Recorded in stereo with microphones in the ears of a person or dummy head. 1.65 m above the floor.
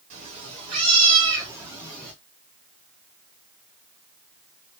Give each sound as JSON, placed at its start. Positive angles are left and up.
{"t": 0.1, "sound": "a cat meowing", "side_deg": -40, "distance_m": 2.5}